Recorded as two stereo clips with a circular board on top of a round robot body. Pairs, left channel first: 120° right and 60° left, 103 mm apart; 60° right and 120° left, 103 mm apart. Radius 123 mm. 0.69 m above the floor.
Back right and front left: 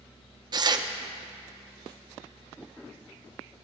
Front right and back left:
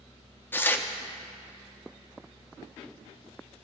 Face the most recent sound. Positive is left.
turn(degrees=10)